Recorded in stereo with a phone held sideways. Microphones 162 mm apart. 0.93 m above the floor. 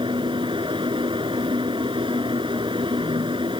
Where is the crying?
I don't hear crying.